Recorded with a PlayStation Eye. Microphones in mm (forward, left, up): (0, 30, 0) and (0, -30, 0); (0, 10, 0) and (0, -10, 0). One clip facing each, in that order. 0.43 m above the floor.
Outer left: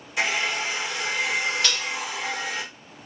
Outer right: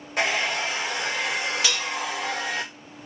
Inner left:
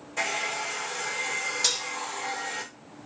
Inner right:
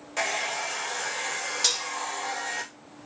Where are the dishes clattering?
10° right (ahead or behind), 0.5 m.